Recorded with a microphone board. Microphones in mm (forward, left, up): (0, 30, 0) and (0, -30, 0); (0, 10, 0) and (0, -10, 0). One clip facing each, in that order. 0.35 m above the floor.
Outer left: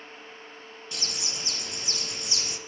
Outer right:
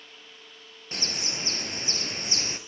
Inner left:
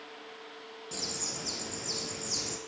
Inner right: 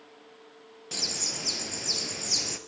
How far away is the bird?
About 1.8 m.